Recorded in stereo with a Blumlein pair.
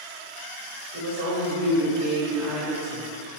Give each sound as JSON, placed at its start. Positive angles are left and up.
{"t": 0.9, "sound": "a woman speaking", "azimuth_deg": -55, "distance_m": 1.0}